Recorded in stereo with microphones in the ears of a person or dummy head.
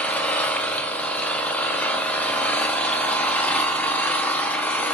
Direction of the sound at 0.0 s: 10° left (ahead or behind).